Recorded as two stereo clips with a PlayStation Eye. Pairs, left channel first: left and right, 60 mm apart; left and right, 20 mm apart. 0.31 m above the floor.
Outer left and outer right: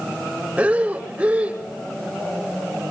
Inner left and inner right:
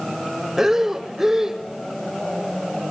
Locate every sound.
0.6 s breathing: 25° right (ahead or behind), 1.4 m